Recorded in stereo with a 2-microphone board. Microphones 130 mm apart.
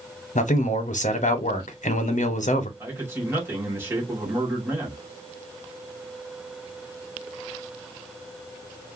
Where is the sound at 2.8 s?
20° right (ahead or behind), 1.8 m.